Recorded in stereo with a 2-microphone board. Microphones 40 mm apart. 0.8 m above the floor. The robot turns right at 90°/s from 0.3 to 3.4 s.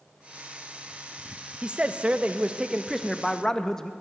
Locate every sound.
1.6 s a man speaking: 135° right, 0.5 m; by 3.9 s 25° left, 0.5 m